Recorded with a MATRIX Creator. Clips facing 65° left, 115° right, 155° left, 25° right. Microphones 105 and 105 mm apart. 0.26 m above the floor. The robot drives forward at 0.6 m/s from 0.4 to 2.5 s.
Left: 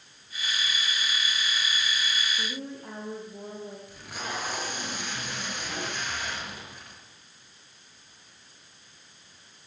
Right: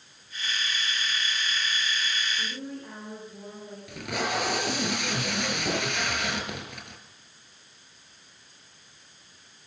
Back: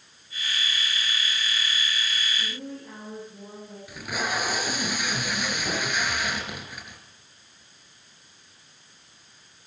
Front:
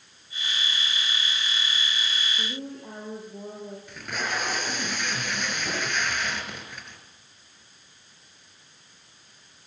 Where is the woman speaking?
Straight ahead, 10 m.